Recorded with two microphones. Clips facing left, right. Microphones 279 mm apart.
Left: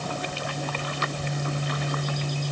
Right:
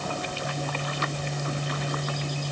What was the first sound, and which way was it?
Only background noise.